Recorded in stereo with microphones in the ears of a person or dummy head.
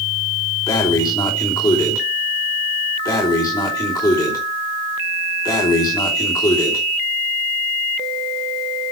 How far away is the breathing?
About 3 m.